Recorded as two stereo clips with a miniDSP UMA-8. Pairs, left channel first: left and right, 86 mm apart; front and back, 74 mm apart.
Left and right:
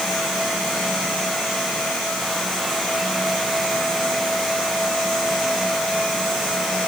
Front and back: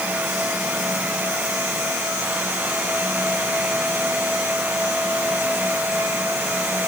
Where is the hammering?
I don't hear hammering.